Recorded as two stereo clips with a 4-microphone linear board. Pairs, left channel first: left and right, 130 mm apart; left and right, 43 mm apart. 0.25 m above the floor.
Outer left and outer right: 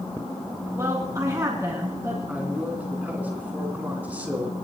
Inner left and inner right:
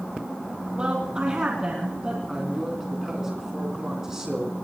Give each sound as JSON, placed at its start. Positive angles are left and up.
{"t": 0.8, "sound": "a woman speaking", "side_deg": -25, "distance_m": 2.5}
{"t": 2.3, "sound": "a man speaking", "side_deg": -10, "distance_m": 3.0}